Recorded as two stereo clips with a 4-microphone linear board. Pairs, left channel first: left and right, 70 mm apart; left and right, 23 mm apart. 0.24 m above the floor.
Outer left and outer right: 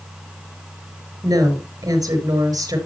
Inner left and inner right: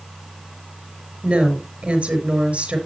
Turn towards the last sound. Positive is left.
turn(degrees=-65)  # may be behind; listen again after turning